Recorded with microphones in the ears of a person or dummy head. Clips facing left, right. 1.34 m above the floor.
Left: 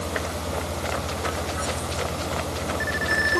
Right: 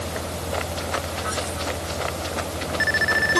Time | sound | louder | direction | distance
0.0 | a fan | even | 65° left (ahead or behind) | 7.5 m